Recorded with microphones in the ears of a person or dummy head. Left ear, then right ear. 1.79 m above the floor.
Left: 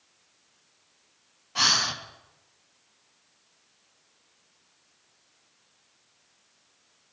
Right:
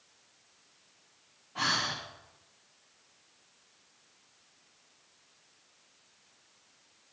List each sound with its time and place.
1.6 s breathing: 75° left (ahead or behind), 1.4 m